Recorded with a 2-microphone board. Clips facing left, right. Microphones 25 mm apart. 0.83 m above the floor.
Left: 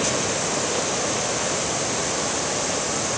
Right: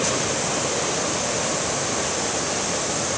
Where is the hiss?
I don't hear a hiss.